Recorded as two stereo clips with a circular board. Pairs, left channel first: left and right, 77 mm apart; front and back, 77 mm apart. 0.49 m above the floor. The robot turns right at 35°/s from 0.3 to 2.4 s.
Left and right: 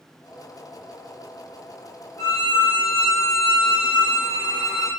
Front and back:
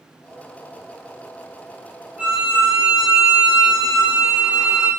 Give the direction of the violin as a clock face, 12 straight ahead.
8 o'clock.